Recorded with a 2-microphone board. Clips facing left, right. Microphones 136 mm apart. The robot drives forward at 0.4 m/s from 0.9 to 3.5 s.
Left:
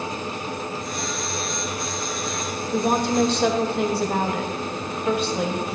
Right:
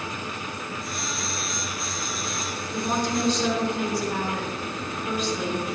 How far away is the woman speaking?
About 1.7 m.